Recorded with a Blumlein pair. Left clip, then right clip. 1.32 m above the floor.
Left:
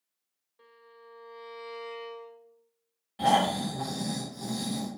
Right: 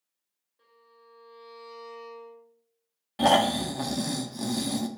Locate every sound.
0.6 s a violin: 25° left, 1.0 m
3.2 s snoring: 25° right, 0.5 m